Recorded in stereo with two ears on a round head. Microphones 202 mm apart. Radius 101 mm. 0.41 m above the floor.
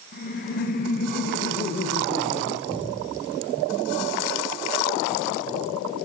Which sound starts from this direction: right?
A cupboard door, at 2.7 s.